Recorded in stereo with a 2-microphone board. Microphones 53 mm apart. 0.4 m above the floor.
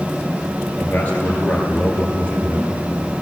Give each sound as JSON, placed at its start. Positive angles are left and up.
{"t": 0.8, "sound": "a man speaking", "side_deg": 25, "distance_m": 8.0}